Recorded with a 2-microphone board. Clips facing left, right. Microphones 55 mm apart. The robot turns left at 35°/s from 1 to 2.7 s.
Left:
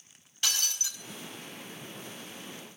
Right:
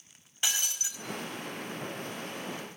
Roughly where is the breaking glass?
Centre.